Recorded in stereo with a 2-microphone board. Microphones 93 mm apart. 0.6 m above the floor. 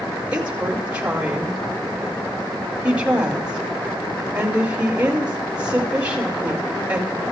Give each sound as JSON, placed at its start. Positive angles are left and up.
{"t": 0.3, "sound": "a woman speaking", "side_deg": -15, "distance_m": 4.5}